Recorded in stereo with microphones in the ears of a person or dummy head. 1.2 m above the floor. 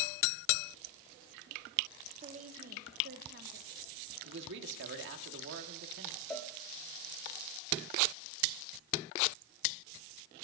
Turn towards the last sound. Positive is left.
turn(degrees=5)  # may be behind; listen again after turning